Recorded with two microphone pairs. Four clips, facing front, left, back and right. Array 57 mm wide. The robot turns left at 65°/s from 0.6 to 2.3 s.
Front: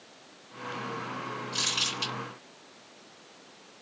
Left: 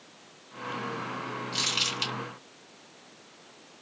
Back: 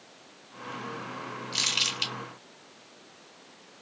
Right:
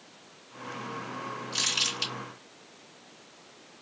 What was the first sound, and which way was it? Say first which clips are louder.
Crumpling: even, back 3 dB; straight behind.